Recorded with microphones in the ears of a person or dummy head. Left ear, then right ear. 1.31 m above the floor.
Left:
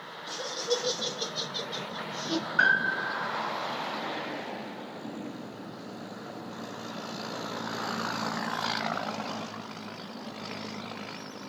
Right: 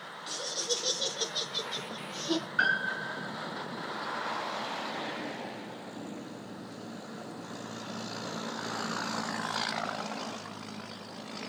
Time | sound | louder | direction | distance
0.3 | laughter | left 2 dB | 55° right (ahead or behind) | 0.9 m
2.6 | a piano | left 5 dB | 5° right (ahead or behind) | 3.5 m